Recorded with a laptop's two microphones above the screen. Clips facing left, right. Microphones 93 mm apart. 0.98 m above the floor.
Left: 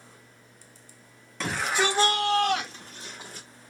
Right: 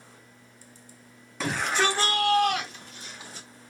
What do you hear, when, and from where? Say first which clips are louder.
1.4 s a shout: right 1 dB; centre (ahead or behind), 1.1 m; by 3.5 s 50° left (ahead or behind), 1.7 m